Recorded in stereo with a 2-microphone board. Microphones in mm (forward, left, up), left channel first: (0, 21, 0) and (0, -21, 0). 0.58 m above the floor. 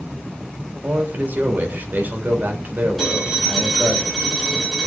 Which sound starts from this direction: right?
A man speaking, at 0.8 s.